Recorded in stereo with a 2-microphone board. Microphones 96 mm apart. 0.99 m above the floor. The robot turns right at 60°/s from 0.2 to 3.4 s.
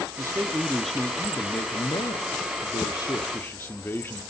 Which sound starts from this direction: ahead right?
A man speaking, at 0.2 s.